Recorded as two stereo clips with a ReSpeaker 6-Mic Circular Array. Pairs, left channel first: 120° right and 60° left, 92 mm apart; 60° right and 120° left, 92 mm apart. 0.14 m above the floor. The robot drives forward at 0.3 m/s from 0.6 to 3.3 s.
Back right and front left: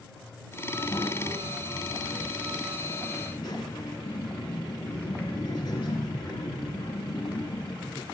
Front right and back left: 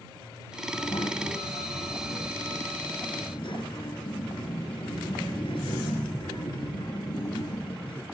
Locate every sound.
0.7 s a child speaking: 80° right, 5 m; by 8.1 s 90° right, 5 m